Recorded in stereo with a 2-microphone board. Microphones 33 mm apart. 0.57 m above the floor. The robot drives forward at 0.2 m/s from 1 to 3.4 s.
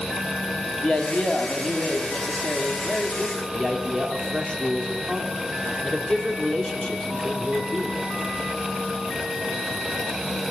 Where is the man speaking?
25° left (ahead or behind), 1.1 m; by 8.0 s 20° left (ahead or behind), 1.4 m.